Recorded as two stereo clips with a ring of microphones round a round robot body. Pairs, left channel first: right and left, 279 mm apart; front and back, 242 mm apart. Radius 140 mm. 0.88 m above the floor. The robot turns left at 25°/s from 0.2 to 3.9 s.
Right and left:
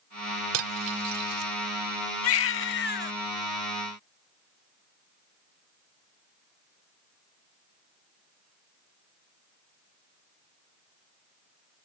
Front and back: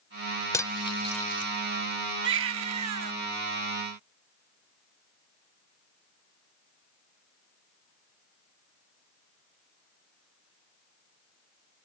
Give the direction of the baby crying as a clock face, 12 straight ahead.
4 o'clock.